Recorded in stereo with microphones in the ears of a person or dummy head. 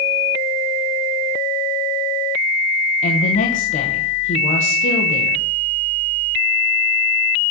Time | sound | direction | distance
3.0 | a woman speaking | 45° left (ahead or behind) | 1.1 m